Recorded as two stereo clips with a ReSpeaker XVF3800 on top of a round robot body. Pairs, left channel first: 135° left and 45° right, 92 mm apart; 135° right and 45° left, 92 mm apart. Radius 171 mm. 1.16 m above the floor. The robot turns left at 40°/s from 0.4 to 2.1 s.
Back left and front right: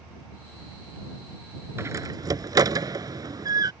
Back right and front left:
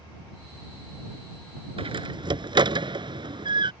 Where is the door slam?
20° left; by 3.7 s 5° left.